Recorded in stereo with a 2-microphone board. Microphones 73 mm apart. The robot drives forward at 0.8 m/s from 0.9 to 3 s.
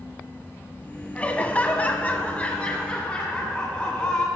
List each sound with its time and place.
1.1 s laughter: 15° left (ahead or behind), 1.2 m